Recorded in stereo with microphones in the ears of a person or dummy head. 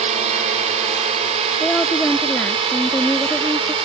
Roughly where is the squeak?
I don't hear a squeak.